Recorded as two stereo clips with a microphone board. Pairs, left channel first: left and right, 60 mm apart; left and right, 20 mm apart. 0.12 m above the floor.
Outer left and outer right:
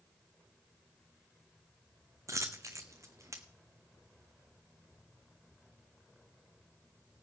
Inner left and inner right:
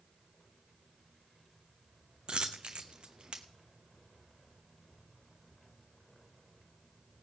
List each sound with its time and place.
2.3 s a dropped coin: 60° right (ahead or behind), 0.9 m